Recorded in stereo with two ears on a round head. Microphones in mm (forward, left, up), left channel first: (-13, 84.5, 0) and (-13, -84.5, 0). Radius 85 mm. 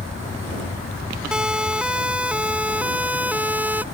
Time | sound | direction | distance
1.3 | a siren | 5° right (ahead or behind) | ?